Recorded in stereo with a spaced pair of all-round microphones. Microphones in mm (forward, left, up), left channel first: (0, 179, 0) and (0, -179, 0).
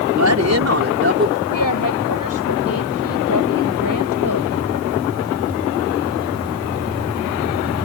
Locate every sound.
0.2 s a woman speaking: 55° right (ahead or behind); by 1.4 s 30° right (ahead or behind)
1.5 s a woman speaking: 70° left (ahead or behind)